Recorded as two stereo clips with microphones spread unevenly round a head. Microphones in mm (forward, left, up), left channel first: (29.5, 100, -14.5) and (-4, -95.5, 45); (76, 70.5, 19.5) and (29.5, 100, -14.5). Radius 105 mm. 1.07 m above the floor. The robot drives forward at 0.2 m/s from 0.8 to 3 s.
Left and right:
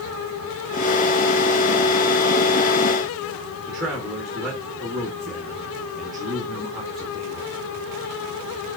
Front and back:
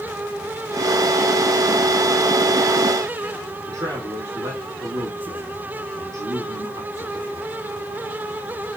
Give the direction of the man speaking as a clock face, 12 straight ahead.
6 o'clock.